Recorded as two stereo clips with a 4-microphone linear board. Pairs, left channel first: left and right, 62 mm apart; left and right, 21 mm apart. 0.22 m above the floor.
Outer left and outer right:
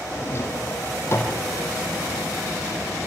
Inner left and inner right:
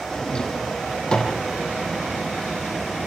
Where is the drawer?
45° left (ahead or behind), 4 m.